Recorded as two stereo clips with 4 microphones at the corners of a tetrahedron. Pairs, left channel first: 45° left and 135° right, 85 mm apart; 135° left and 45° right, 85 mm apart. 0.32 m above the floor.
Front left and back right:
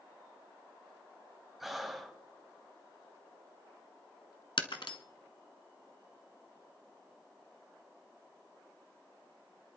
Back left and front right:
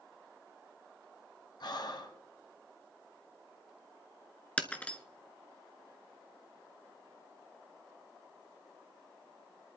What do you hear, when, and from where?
1.6 s breathing: 140° left, 1.2 m
4.6 s breaking glass: 60° left, 0.9 m